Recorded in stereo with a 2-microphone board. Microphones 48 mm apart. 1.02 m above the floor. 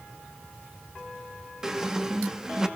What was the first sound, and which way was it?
A squeak, 10° right (ahead or behind).